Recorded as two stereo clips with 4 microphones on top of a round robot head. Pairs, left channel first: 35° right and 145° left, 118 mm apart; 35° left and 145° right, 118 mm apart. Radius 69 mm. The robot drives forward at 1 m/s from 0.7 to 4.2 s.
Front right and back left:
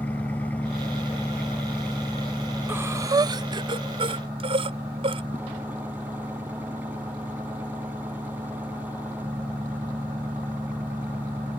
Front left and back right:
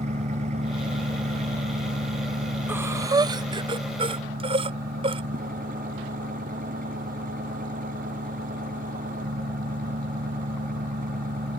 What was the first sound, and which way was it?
An engine running, 115° right.